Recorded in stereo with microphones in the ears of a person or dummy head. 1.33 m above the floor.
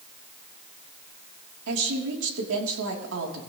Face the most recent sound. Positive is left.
turn(degrees=-65)  # may be behind; listen again after turning